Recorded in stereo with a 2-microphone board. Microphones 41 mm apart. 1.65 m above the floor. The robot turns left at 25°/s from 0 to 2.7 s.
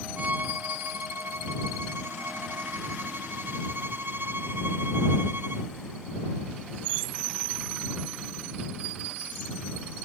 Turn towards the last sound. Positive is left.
turn(degrees=-110)